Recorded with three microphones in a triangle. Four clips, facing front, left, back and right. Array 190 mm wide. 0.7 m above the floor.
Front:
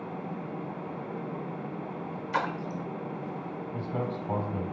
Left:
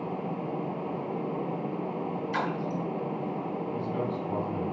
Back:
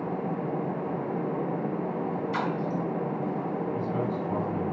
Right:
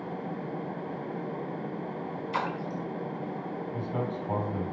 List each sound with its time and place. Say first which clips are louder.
2.3 s a splash: even, front 2 dB; 15° right, 1.6 m
3.7 s a man speaking: even, back 4 dB; 25° right, 3 m